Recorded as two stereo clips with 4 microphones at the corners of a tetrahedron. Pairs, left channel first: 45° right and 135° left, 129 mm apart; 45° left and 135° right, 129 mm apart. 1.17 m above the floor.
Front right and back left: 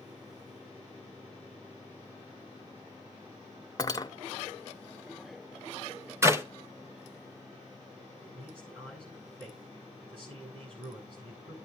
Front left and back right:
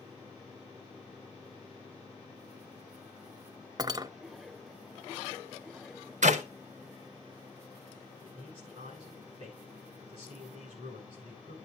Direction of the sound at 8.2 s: Straight behind.